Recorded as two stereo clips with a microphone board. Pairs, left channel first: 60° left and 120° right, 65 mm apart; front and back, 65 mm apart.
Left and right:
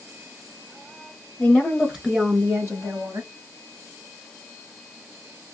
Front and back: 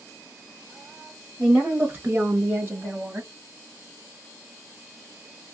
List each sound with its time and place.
1.4 s a woman speaking: 115° left, 1.2 m; by 3.3 s 125° right, 2.0 m